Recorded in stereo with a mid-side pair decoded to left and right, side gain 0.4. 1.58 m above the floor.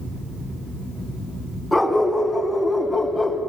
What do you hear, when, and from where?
1.7 s a dog barking: straight ahead, 5.5 m; by 3.4 s 5° left, 4 m